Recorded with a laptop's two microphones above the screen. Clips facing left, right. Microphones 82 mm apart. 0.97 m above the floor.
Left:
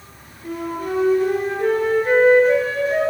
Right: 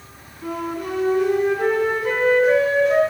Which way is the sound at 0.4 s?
80° right.